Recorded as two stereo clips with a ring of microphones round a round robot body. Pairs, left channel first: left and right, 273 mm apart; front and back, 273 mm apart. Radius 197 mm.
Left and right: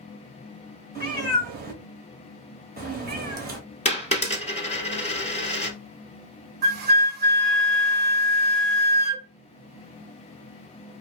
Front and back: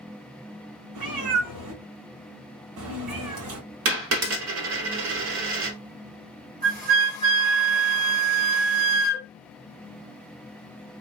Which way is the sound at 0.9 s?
150° right.